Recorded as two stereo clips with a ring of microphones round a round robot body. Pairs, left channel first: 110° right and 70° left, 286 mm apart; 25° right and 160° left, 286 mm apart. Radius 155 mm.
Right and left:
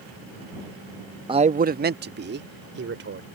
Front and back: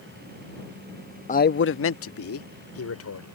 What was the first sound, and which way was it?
A man speaking, 10° left.